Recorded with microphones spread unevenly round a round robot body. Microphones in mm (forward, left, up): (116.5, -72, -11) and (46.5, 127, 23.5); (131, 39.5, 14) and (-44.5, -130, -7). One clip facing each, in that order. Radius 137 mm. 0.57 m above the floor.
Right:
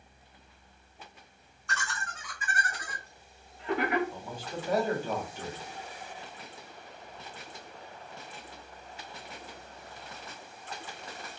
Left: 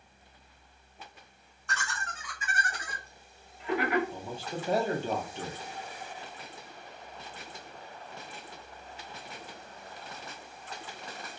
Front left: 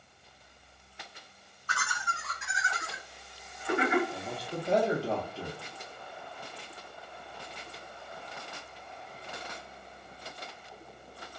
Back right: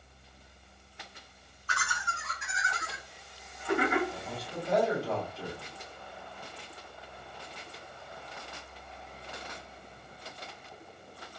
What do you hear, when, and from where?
1.7 s laughter: 85° left, 1.7 m; by 4.0 s 5° right, 1.3 m
4.1 s a man speaking: 65° left, 0.6 m